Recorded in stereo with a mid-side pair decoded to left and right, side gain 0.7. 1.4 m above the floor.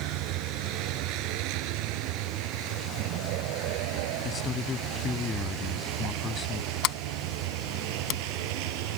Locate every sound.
0.0 s a vehicle: 65° right; by 9.0 s 75° right
4.2 s a man speaking: 30° left
6.8 s a sliding door: 60° left